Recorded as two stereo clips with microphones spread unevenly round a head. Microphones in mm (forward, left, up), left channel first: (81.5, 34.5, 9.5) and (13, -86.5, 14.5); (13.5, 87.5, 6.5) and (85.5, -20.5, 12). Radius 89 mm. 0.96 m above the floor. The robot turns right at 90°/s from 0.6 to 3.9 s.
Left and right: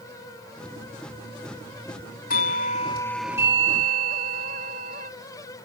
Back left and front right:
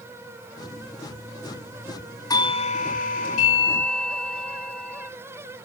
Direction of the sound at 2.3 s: 65° left.